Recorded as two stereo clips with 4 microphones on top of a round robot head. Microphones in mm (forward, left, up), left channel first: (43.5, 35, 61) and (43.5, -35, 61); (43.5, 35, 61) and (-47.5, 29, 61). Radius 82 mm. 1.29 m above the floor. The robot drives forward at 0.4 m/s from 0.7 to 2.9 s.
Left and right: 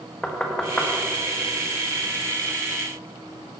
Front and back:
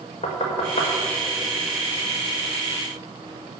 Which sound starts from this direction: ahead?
Knocking, at 0.2 s.